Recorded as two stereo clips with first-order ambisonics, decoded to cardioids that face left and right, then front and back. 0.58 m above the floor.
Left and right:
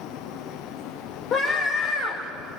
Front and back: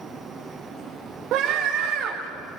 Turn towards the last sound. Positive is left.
turn(degrees=145)